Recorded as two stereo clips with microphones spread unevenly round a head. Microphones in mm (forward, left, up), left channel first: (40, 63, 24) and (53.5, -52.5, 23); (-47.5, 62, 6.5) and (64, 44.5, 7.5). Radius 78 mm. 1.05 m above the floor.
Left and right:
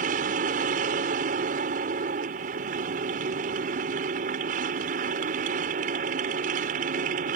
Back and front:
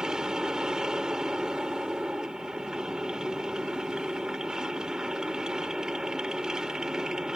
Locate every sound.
0.0 s a machine running: 95° right